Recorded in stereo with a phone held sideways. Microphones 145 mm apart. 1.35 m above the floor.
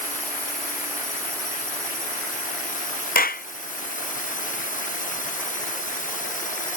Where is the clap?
85° left.